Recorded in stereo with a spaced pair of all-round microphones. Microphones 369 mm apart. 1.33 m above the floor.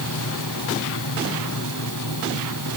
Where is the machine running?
55° left (ahead or behind).